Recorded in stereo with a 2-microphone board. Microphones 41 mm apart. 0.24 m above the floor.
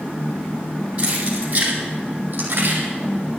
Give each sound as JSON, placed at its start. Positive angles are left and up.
{"t": 1.0, "sound": "keys jangling", "side_deg": -30, "distance_m": 7.0}